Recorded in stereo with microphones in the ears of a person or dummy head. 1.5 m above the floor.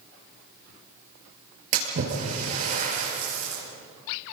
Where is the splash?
45° right (ahead or behind), 6 m.